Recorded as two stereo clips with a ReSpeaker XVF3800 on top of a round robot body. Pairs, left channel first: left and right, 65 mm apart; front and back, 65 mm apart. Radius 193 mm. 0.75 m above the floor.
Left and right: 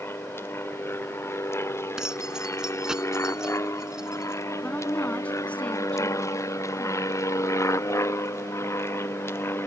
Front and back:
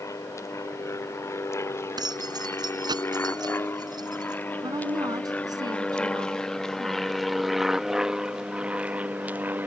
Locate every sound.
0.0 s an aircraft: 40° left; by 9.7 s 125° left
2.0 s keys jangling: 170° right
4.6 s a woman speaking: 160° left